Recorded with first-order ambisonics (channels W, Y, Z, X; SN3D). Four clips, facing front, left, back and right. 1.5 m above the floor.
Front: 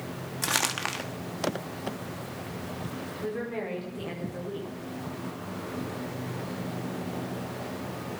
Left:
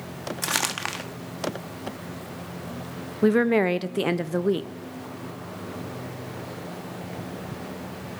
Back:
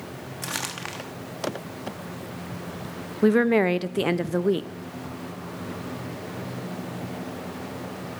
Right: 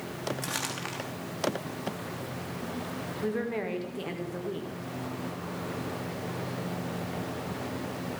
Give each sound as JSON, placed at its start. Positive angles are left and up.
{"t": 0.4, "sound": "crumpling", "azimuth_deg": 65, "distance_m": 1.0}
{"t": 3.2, "sound": "a woman speaking", "azimuth_deg": 140, "distance_m": 0.7}